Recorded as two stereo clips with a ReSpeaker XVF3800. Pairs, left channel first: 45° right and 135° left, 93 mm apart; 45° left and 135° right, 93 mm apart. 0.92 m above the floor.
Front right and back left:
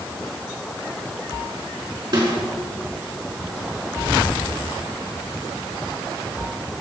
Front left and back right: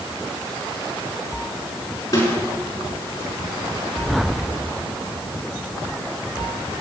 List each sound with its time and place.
2.1 s a snare drum: 100° left, 5 m